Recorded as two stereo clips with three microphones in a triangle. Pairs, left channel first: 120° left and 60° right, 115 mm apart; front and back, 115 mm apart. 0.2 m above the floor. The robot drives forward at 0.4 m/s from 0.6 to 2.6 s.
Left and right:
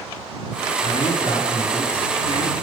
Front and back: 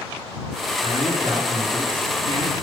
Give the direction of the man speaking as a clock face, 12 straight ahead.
8 o'clock.